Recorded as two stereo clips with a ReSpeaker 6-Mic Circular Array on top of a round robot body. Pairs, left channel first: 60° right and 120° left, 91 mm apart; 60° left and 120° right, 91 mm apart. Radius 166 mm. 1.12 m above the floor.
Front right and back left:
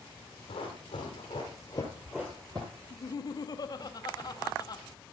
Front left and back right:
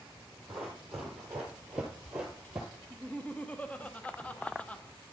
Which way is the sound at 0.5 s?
30° right.